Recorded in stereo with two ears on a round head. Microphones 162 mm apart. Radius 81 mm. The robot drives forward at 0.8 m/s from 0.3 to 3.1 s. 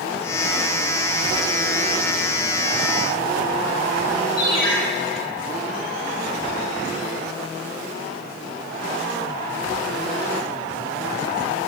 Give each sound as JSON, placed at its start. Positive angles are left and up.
{"t": 4.4, "sound": "a ringtone", "side_deg": 25, "distance_m": 4.5}